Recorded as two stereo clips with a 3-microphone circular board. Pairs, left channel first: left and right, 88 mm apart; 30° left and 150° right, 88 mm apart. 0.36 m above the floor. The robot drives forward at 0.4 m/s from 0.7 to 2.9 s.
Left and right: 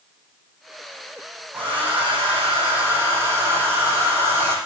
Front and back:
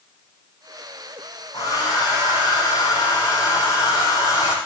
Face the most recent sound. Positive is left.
turn(degrees=-20)